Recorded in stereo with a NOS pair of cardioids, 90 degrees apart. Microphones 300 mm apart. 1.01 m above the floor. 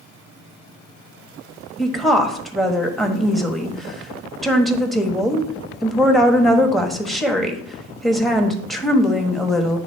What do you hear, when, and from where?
1.8 s a woman speaking: straight ahead, 1.2 m